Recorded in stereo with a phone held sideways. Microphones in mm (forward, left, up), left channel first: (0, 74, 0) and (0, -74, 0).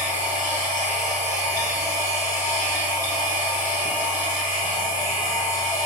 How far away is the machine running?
About 0.7 m.